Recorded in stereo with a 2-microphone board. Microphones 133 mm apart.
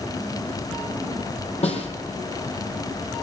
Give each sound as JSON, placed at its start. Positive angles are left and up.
{"t": 1.6, "sound": "a snare drum", "side_deg": 55, "distance_m": 6.5}